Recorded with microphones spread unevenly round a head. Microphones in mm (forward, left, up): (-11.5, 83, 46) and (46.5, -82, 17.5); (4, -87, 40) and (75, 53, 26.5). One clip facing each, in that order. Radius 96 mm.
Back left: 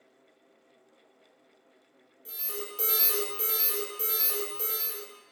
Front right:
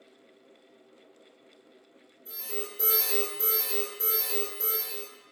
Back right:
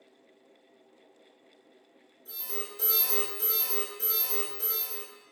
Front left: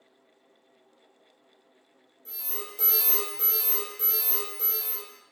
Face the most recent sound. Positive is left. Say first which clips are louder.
# front right 2 dB, back right 1 dB
turn(degrees=105)